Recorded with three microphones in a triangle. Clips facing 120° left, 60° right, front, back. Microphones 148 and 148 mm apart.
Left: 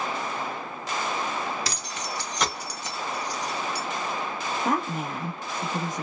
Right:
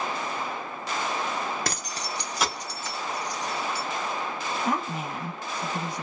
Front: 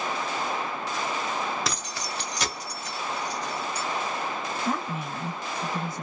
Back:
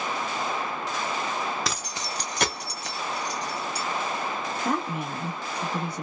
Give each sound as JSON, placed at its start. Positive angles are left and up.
{"t": 1.6, "sound": "keys jangling", "azimuth_deg": -90, "distance_m": 0.6}
{"t": 4.7, "sound": "a woman speaking", "azimuth_deg": 160, "distance_m": 1.4}